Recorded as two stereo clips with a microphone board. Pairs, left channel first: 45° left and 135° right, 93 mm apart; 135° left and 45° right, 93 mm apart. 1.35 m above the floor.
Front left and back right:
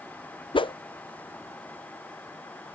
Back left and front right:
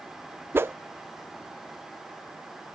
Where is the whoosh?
20° left.